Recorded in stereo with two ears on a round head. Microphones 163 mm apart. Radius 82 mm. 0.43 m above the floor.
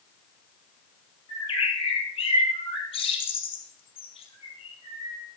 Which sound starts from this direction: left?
A bird, at 1.3 s.